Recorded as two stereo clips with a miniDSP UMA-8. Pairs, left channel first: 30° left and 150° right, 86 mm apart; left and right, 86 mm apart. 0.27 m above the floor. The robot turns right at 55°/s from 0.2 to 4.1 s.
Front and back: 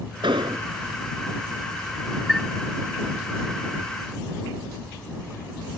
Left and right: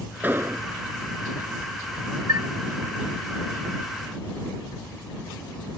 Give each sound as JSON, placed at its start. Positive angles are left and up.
{"t": 0.2, "sound": "an explosion", "azimuth_deg": -160}
{"t": 2.3, "sound": "a chime", "azimuth_deg": -60}